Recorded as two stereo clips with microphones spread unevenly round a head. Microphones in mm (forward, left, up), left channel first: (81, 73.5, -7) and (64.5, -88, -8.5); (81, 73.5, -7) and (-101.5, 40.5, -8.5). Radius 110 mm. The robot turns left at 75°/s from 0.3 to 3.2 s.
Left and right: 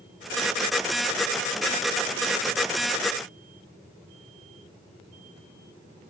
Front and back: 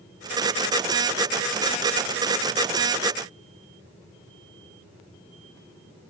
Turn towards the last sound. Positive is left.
No sound to turn to.